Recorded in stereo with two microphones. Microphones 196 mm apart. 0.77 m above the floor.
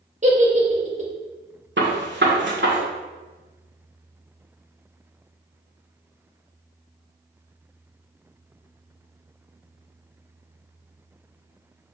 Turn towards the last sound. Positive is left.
turn(degrees=-70)  # may be behind; listen again after turning